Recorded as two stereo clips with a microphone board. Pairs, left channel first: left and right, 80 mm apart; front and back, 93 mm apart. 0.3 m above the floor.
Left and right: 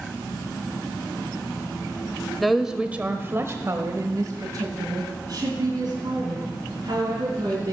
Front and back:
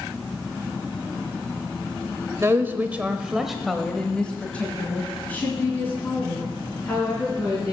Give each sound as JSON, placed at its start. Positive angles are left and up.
{"t": 2.4, "sound": "a woman speaking", "azimuth_deg": 175, "distance_m": 0.9}